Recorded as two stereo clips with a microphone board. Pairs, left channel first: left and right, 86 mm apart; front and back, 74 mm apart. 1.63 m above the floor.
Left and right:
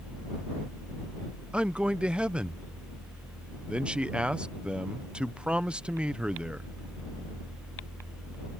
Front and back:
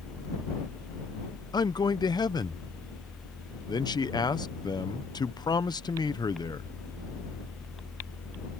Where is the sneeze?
No sneeze in this recording.